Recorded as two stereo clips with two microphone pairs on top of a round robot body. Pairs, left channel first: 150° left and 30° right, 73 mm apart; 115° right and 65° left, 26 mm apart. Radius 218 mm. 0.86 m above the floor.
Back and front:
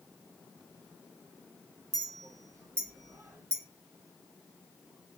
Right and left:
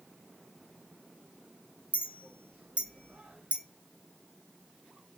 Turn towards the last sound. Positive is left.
turn(degrees=25)